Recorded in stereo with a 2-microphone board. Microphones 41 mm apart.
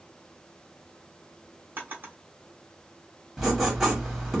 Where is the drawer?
50° right (ahead or behind), 1.3 m.